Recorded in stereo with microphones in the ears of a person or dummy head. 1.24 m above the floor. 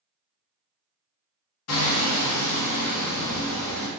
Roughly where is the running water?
No running water in this recording.